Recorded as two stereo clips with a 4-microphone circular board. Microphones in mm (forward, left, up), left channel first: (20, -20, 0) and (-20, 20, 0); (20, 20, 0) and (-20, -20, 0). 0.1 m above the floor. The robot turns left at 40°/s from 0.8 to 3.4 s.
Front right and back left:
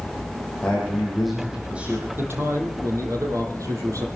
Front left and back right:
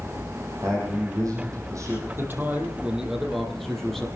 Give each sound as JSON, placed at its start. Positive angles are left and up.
{"t": 0.6, "sound": "a man speaking", "azimuth_deg": -115, "distance_m": 4.5}
{"t": 2.2, "sound": "a man speaking", "azimuth_deg": 180, "distance_m": 4.0}